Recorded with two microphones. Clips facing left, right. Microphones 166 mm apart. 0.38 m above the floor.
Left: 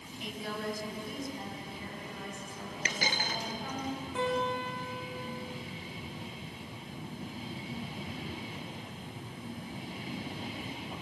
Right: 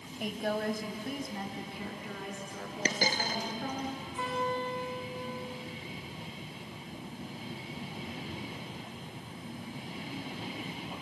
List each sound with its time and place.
0.2 s a woman speaking: 55° right (ahead or behind), 2.5 m; by 3.9 s 65° right (ahead or behind), 7.5 m
2.9 s a dropped coin: 40° right (ahead or behind), 1.4 m
4.2 s a guitar: 85° left, 7 m